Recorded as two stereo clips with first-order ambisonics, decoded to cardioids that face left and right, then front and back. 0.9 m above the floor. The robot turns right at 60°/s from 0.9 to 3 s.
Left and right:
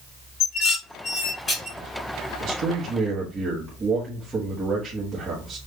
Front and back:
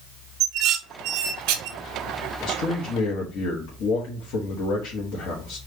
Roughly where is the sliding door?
No sliding door in this recording.